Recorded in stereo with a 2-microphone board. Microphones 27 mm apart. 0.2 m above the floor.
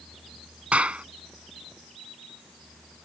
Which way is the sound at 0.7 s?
50° right (ahead or behind).